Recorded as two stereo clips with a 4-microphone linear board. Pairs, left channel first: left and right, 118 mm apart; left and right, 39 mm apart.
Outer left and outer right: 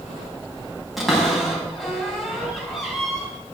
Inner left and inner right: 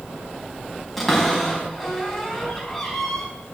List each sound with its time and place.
1.0 s a cupboard door: centre (ahead or behind), 3.5 m